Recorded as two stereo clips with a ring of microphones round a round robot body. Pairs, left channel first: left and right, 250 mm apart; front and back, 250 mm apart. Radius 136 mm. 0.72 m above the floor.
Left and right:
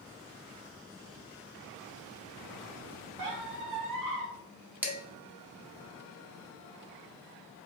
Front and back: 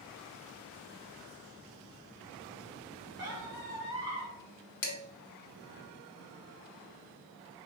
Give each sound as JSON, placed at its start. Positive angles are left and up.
{"t": 3.2, "sound": "a squeak", "azimuth_deg": -100, "distance_m": 1.5}
{"t": 4.8, "sound": "dishes clattering", "azimuth_deg": -5, "distance_m": 0.9}